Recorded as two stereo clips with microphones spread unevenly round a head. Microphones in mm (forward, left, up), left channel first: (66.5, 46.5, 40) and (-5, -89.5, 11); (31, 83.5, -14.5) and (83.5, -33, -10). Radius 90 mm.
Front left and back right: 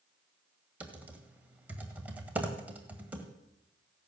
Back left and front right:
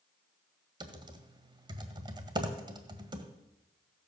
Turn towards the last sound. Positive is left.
turn(degrees=-30)